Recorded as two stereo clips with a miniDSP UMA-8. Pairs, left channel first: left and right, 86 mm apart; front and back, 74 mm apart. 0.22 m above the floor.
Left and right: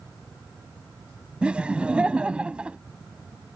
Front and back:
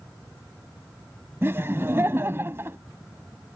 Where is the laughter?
160° right.